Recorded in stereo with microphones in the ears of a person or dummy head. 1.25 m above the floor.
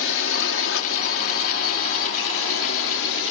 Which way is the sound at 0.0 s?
65° left (ahead or behind).